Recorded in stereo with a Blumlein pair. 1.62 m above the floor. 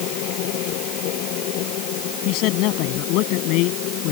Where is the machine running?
40° left.